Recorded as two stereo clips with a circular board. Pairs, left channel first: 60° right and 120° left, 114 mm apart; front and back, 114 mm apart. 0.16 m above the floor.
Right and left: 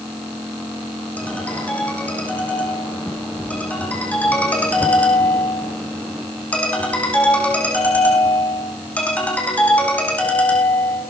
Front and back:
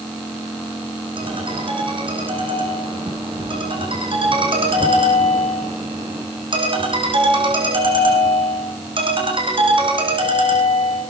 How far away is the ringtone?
About 5.5 m.